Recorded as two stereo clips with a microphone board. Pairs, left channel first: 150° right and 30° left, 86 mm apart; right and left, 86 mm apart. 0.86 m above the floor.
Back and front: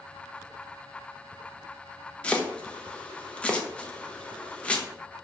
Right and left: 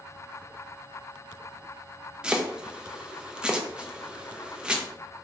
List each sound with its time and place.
2.2 s chopping: 155° left, 0.5 m